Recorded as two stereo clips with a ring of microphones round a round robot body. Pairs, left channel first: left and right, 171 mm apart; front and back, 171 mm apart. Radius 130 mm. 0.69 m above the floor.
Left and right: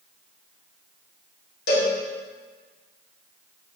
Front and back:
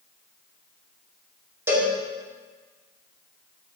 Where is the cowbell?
105° left, 2 m.